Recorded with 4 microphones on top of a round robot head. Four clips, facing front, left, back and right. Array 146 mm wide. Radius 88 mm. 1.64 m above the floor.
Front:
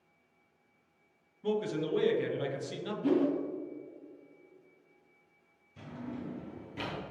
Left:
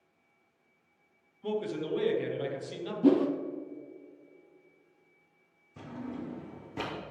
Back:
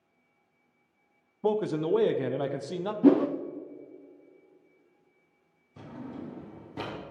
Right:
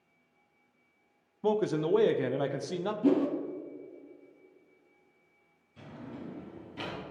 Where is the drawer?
135° left, 1.8 m.